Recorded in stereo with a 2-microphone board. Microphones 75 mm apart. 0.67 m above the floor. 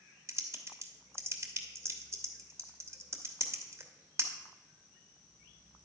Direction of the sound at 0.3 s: 35° right (ahead or behind).